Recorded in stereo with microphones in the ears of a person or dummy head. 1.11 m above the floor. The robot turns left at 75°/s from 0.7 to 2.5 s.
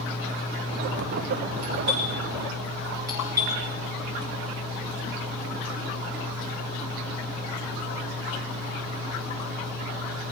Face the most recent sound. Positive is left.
turn(degrees=-15)  # may be behind; listen again after turning